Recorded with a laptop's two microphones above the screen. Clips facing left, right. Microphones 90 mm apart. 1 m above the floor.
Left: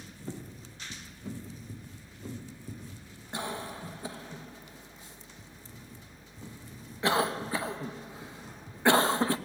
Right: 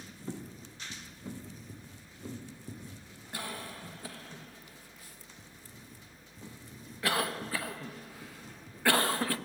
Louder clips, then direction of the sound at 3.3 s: Left 5 dB; 20° left (ahead or behind).